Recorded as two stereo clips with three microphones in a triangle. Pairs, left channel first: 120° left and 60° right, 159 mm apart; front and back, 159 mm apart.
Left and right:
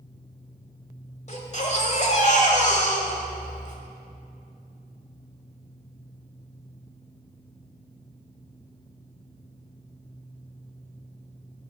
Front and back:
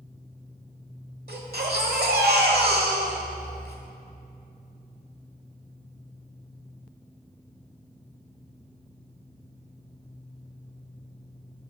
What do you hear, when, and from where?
1.3 s a baby crying: 165° left, 1.2 m